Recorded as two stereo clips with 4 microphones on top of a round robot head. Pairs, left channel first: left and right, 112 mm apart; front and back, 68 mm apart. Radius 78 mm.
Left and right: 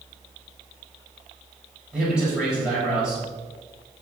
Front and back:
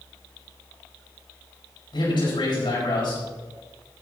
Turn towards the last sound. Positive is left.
turn(degrees=-5)